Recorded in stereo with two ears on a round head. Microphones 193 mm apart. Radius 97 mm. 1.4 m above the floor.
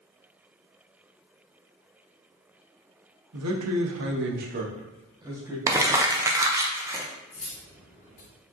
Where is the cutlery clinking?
35° left (ahead or behind), 1.1 m.